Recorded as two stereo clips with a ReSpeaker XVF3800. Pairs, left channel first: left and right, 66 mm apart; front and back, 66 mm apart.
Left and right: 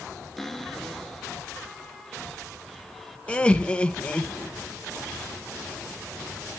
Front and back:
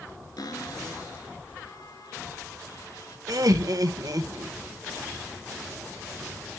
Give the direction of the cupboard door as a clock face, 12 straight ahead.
12 o'clock.